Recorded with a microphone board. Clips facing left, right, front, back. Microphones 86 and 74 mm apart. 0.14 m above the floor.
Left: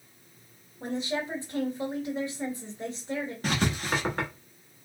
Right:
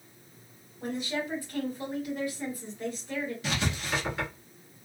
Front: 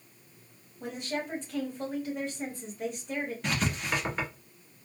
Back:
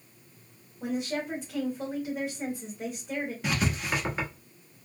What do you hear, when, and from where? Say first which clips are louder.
0.8 s a woman speaking: left 1 dB, back 4 dB; 110° left, 1.8 m
3.4 s writing: left 4 dB, back 2 dB; 95° left, 1.1 m